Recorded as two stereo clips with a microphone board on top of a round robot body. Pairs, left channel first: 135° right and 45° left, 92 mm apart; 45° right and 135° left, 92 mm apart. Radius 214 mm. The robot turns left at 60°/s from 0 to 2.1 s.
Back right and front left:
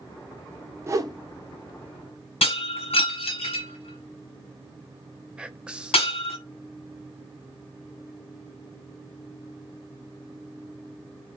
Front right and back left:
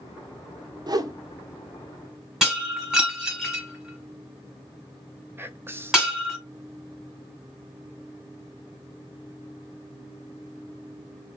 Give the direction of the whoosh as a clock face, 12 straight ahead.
9 o'clock.